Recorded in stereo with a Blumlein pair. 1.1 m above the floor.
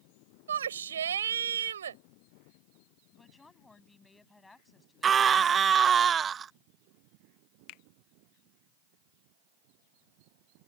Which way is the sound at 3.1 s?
10° left.